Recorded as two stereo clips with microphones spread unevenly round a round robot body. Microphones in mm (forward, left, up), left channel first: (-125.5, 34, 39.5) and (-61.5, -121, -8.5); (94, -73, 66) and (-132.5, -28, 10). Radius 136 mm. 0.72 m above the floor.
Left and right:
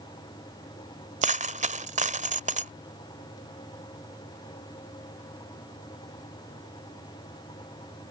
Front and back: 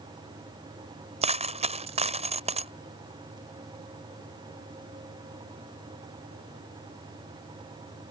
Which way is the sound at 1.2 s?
120° right.